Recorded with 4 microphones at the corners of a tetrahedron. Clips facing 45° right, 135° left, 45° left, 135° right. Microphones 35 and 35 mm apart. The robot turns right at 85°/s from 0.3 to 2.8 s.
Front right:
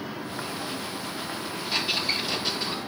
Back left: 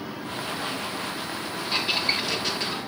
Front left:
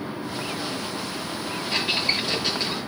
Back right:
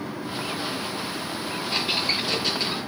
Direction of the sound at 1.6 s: 50° left.